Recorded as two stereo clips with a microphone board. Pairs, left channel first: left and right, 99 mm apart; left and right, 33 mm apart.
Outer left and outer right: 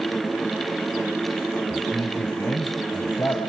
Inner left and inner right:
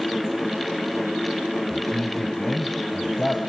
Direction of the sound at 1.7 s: 25° left (ahead or behind).